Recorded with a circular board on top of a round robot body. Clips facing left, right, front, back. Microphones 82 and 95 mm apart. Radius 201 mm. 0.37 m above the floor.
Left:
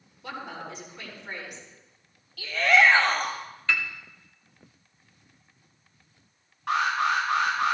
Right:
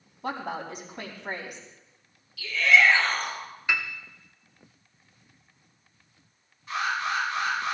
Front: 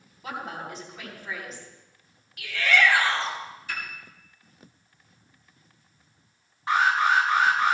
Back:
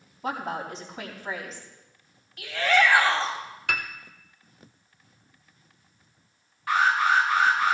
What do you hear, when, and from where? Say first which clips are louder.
0.2 s a woman speaking: right 5 dB, back 4 dB; 125° right, 4.5 m
2.4 s a shout: left 1 dB, back 1 dB; 120° left, 3 m
3.7 s a piano: even, back 6 dB; 165° right, 1.3 m
6.7 s an alarm: left 4 dB, even; 65° left, 9 m